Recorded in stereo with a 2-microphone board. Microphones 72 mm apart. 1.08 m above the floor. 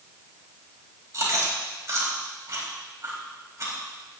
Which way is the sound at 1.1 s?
40° right (ahead or behind).